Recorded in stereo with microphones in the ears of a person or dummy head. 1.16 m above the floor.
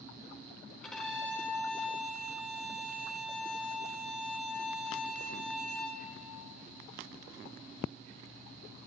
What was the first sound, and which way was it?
A violin, 5° left (ahead or behind).